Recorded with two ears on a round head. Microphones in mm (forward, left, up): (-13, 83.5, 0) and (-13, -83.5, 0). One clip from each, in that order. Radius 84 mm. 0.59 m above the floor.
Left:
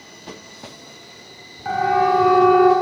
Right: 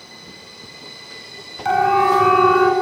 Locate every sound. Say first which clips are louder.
1.6 s a siren: right 2 dB; 65° right (ahead or behind), 7.5 m; by 2.7 s 70° right (ahead or behind), 8 m